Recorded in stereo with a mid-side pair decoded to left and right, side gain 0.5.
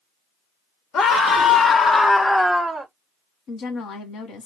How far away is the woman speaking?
About 1.2 m.